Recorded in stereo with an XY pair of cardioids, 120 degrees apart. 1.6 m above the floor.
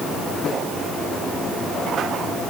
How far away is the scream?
I don't hear a scream.